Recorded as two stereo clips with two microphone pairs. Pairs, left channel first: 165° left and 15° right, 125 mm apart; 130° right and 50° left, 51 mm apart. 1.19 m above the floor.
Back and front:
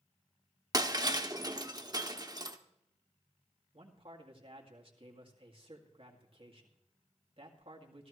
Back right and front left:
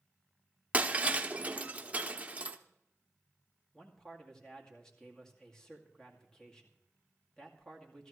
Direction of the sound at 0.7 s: 10° left.